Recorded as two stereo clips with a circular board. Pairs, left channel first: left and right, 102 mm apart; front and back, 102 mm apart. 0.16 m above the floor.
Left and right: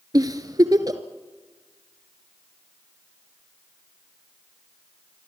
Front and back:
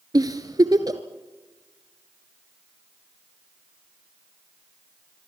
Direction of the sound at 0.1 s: 135° right.